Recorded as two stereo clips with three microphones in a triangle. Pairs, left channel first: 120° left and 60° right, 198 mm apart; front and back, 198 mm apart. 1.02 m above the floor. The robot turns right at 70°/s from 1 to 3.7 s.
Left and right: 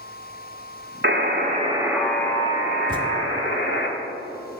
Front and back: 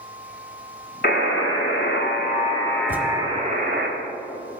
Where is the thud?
110° right, 0.9 m; by 3.1 s 95° right, 0.9 m.